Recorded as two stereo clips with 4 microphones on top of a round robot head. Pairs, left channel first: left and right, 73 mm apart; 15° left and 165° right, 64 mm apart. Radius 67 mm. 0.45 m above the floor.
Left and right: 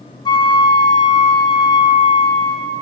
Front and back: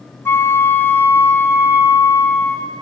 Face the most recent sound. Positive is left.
turn(degrees=65)